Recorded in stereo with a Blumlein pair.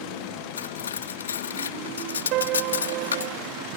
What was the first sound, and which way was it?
Cutlery clinking, 65° left.